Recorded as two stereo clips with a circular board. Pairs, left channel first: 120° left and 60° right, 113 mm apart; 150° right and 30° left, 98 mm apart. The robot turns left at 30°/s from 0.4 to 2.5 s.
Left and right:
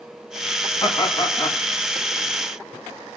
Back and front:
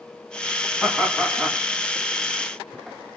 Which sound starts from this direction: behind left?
Laughter, at 0.8 s.